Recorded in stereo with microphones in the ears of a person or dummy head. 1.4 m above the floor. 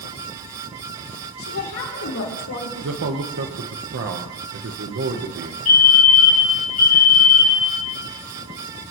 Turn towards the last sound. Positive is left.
turn(degrees=35)  # may be behind; listen again after turning